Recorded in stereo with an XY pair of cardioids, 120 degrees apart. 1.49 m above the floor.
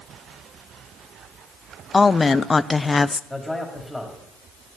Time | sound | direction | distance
1.9 | a woman speaking | 20° left | 0.5 m
3.3 | a man speaking | 5° left | 4.5 m